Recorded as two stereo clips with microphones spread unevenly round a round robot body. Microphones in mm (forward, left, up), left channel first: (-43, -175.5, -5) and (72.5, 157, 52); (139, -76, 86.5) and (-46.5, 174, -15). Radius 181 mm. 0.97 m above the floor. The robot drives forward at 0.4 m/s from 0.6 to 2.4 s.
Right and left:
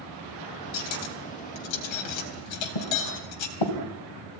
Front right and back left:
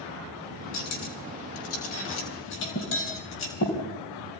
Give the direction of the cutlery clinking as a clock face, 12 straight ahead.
3 o'clock.